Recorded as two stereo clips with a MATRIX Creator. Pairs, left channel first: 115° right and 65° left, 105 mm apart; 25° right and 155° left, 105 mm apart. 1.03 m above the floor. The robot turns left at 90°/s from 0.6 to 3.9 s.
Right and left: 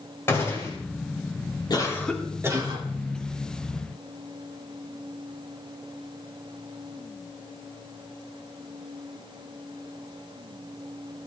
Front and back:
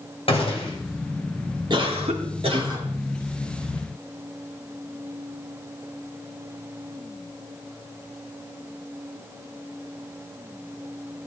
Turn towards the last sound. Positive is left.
turn(degrees=5)